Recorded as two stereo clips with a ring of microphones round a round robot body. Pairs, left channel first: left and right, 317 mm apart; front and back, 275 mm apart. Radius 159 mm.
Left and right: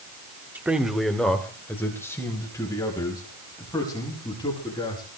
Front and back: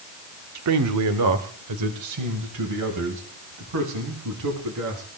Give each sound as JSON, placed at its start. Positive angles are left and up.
{"t": 0.6, "sound": "a man speaking", "azimuth_deg": -175, "distance_m": 1.2}